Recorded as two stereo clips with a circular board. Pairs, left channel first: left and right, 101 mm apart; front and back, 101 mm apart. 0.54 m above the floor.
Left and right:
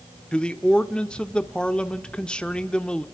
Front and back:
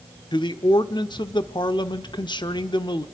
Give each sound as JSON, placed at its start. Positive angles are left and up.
{"t": 0.3, "sound": "a man speaking", "azimuth_deg": 15, "distance_m": 1.0}